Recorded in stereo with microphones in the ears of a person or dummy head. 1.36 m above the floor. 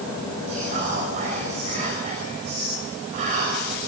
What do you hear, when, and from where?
0.5 s whispering: 35° right (ahead or behind), 5.5 m